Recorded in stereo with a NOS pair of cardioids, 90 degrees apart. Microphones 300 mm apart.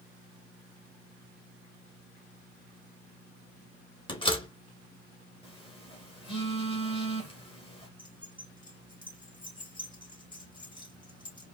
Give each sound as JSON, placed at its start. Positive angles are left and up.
{"t": 4.1, "sound": "a door slam", "azimuth_deg": 15, "distance_m": 1.9}
{"t": 5.4, "sound": "a phone buzzing", "azimuth_deg": 20, "distance_m": 2.0}
{"t": 8.0, "sound": "keys jangling", "azimuth_deg": 15, "distance_m": 3.0}